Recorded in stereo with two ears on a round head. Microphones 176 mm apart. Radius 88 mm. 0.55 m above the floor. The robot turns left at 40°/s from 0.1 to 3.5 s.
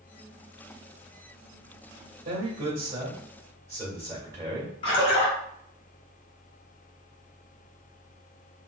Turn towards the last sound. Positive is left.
turn(degrees=30)  # may be behind; listen again after turning